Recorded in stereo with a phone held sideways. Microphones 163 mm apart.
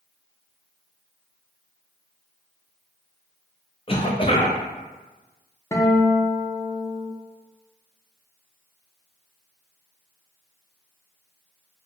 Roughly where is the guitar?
Centre.